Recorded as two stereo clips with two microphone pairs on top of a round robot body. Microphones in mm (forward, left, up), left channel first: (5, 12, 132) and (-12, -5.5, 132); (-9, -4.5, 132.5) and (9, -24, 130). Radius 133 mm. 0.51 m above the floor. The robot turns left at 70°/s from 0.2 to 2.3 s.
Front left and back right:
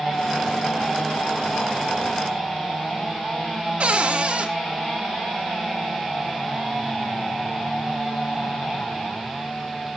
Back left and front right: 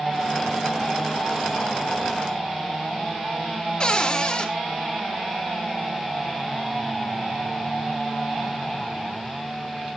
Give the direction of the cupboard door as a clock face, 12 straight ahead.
6 o'clock.